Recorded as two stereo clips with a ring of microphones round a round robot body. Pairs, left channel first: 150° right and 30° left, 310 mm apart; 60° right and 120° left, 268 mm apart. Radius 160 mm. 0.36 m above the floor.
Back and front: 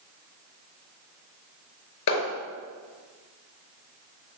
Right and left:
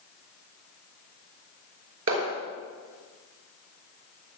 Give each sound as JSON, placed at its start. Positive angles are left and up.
{"t": 2.1, "sound": "a clap", "azimuth_deg": 170, "distance_m": 5.0}